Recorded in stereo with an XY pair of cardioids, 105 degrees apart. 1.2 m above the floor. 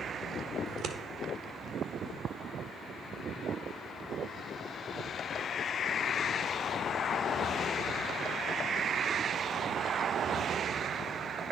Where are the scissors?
70° right, 1.5 m.